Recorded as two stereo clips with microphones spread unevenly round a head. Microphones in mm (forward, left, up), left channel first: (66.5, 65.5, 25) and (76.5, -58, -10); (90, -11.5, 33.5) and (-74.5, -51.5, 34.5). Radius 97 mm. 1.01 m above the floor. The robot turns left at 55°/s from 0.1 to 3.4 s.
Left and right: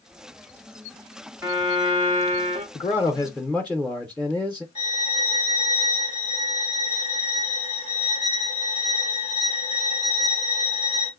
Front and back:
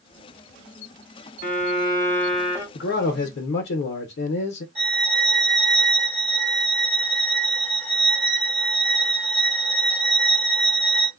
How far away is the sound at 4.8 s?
About 1.9 m.